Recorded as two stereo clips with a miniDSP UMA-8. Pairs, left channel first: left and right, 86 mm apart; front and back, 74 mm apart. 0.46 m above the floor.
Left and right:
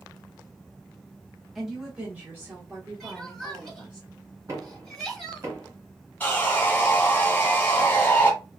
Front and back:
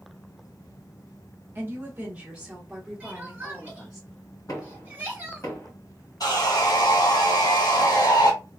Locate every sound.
1.6 s a woman speaking: 175° right, 1.1 m; by 4.0 s 70° right, 1.5 m
3.0 s crying: 175° left, 1.1 m
4.5 s knocking: 40° right, 1.6 m
6.2 s sawing: 20° left, 1.2 m